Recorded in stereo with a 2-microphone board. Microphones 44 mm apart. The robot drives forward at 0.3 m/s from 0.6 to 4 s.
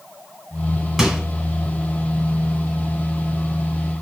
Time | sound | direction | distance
1.0 | a microwave | 10° right (ahead or behind) | 1.3 m